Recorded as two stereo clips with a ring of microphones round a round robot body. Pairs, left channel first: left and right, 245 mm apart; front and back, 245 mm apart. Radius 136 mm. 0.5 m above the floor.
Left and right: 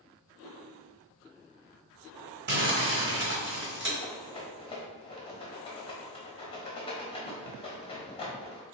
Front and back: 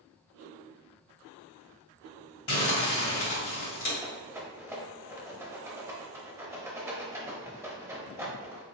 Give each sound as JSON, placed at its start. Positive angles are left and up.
{"t": 2.5, "sound": "crumpling", "azimuth_deg": -45, "distance_m": 1.8}
{"t": 4.0, "sound": "a rattle", "azimuth_deg": 115, "distance_m": 0.9}